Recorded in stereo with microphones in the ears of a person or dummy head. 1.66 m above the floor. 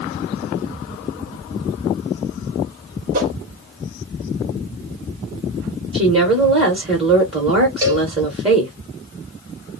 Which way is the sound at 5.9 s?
35° right (ahead or behind).